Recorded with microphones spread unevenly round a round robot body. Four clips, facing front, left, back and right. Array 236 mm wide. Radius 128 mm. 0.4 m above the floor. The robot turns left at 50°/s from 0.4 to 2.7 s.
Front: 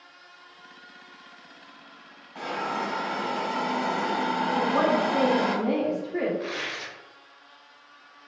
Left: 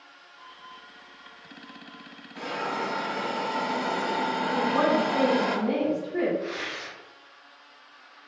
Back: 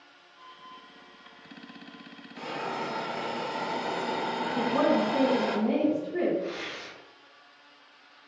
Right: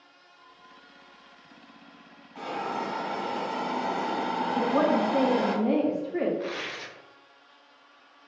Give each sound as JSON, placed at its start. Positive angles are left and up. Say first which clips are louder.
{"t": 2.4, "sound": "a hiss", "louder": "left 1 dB, front 4 dB", "azimuth_deg": 0, "distance_m": 1.6}
{"t": 4.5, "sound": "a woman speaking", "louder": "even, even", "azimuth_deg": -45, "distance_m": 0.8}
{"t": 6.4, "sound": "tearing paper", "louder": "left 1 dB, front 2 dB", "azimuth_deg": -35, "distance_m": 0.6}